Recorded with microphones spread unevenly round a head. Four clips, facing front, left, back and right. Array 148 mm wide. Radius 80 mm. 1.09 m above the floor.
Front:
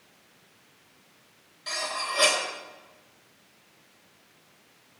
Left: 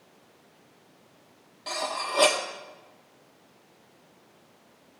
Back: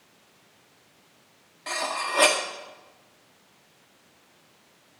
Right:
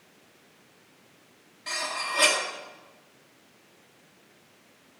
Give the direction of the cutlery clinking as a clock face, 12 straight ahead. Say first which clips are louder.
Left 2 dB, back 3 dB; 8 o'clock.